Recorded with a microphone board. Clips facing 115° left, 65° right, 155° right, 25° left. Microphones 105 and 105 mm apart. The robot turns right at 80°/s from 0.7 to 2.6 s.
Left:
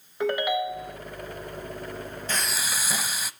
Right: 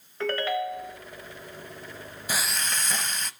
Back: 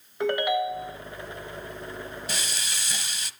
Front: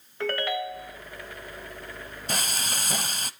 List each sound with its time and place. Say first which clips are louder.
0.2 s a ringtone: left 2 dB, back 4 dB; 160° left, 1.0 m; by 1.0 s straight behind, 1.0 m
2.3 s frying: right 1 dB, front 3 dB; 10° left, 0.6 m; by 3.3 s 35° left, 0.6 m